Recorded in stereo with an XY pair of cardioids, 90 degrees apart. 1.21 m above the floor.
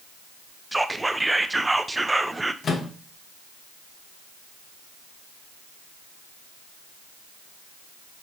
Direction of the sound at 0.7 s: 15° right.